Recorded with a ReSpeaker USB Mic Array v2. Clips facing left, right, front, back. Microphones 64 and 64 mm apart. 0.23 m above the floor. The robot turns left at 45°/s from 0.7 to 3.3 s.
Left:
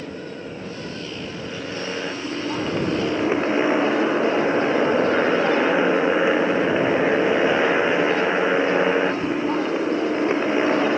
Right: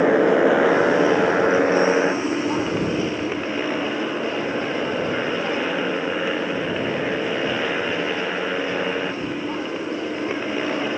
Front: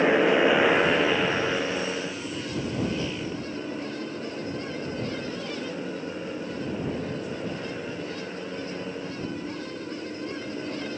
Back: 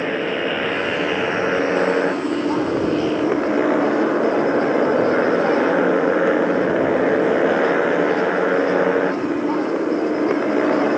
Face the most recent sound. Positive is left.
turn(degrees=160)